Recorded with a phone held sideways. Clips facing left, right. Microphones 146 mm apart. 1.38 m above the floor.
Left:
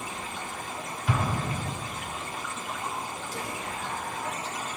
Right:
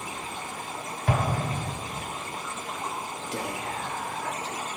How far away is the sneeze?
I don't hear a sneeze.